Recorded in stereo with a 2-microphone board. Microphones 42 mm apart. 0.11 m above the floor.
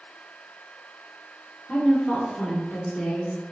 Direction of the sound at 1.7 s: 10° left (ahead or behind).